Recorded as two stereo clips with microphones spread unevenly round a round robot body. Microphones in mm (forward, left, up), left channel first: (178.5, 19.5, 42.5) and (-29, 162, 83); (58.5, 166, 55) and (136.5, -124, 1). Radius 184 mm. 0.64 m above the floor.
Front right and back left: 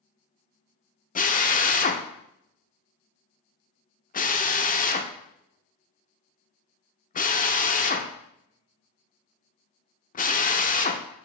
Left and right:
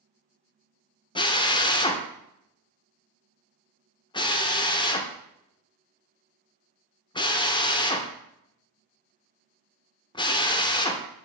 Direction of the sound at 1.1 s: 30° left.